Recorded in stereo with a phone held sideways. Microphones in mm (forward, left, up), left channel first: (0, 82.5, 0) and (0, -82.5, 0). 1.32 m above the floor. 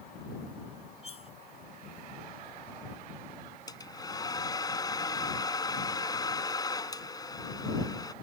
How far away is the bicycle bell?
I don't hear a bicycle bell.